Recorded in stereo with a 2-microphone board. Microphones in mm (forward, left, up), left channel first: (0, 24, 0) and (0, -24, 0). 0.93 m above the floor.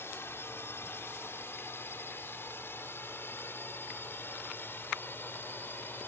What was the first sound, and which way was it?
A drone, 55° left (ahead or behind).